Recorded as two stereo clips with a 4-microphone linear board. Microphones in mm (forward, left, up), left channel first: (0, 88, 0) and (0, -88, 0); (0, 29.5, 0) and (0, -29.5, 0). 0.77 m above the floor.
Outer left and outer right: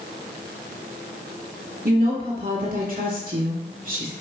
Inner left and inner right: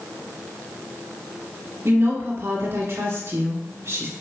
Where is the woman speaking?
55° right (ahead or behind), 2.0 m.